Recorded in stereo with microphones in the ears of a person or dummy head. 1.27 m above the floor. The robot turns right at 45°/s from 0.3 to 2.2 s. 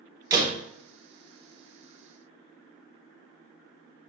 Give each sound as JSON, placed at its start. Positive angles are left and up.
{"t": 0.3, "sound": "a door slam", "side_deg": -30, "distance_m": 1.2}